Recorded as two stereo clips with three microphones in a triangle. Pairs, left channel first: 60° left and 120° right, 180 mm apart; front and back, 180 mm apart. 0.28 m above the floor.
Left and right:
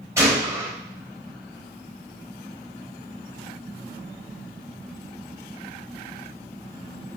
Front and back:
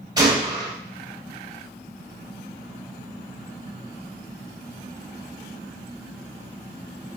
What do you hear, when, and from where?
0.2 s a gunshot: 165° right, 1.4 m